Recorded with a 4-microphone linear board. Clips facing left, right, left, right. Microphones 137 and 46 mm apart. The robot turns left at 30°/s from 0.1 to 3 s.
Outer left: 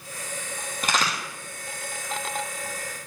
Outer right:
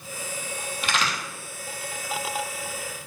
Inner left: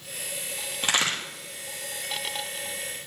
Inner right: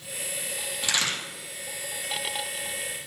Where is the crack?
45° left (ahead or behind), 3 m; by 1.2 s 35° left (ahead or behind), 3 m.